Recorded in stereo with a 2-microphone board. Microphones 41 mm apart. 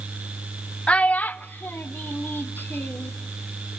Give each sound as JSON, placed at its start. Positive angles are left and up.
{"t": 0.9, "sound": "a child speaking", "side_deg": 30, "distance_m": 0.6}